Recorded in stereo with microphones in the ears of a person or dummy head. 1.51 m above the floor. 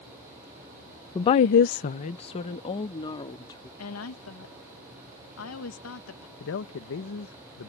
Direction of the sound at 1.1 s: 25° left (ahead or behind).